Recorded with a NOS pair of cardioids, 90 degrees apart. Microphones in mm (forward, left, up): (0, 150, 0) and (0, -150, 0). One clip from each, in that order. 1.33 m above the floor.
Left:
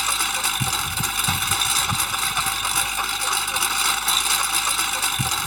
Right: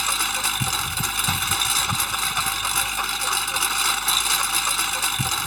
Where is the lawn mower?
10° left.